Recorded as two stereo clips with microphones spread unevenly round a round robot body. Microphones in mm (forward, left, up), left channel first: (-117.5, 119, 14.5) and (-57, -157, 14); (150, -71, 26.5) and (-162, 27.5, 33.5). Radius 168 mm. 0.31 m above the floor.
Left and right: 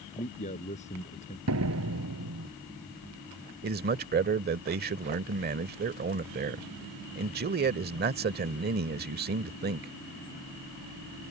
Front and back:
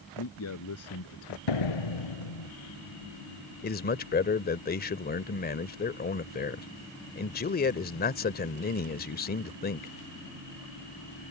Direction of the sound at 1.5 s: 25° right.